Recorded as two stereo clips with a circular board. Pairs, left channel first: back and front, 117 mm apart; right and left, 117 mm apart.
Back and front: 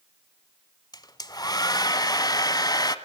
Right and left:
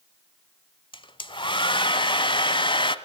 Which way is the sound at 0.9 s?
130° right.